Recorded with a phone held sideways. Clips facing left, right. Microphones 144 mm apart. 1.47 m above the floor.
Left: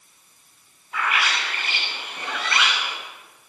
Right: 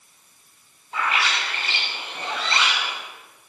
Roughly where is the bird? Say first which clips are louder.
Even; right.